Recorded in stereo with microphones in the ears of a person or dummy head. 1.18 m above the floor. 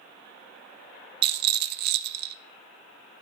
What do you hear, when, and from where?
1.2 s a rattle: 60° right (ahead or behind), 0.9 m